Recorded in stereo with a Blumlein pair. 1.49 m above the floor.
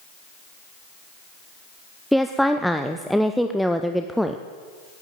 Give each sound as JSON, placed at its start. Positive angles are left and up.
{"t": 2.1, "sound": "a woman speaking", "azimuth_deg": 0, "distance_m": 0.6}